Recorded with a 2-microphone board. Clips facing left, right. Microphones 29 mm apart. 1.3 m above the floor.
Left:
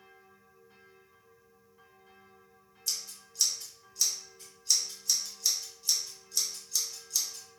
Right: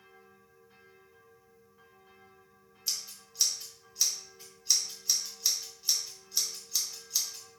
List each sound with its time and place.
2.9 s scissors: 15° right (ahead or behind), 1.0 m